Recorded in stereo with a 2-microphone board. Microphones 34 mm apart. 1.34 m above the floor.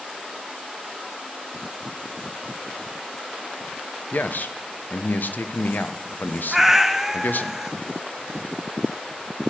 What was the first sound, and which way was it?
A man speaking, 65° left (ahead or behind).